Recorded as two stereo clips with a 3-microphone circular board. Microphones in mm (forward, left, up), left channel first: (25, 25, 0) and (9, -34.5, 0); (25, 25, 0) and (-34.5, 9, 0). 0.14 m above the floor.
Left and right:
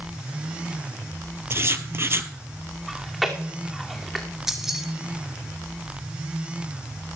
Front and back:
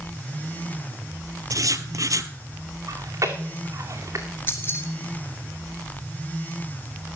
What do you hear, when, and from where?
1.5 s writing: 150° right, 0.7 m
2.9 s chewing: 165° left, 2 m
4.5 s keys jangling: 25° right, 1.7 m